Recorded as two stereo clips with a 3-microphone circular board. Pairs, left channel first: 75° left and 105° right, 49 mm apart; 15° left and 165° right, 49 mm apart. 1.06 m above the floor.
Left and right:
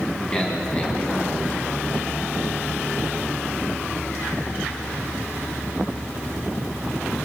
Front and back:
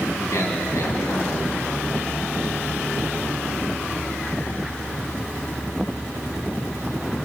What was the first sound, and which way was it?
A man speaking, 10° left.